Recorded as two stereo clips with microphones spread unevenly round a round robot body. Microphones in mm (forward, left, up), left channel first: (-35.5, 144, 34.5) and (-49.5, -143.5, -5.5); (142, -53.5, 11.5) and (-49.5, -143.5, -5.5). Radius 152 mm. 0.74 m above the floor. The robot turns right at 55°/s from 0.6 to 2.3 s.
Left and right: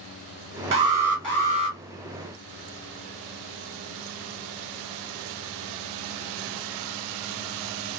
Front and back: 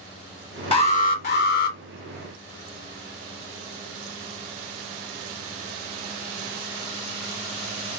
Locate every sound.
0.7 s an alarm: 35° right, 1.0 m; by 1.8 s 25° left, 1.0 m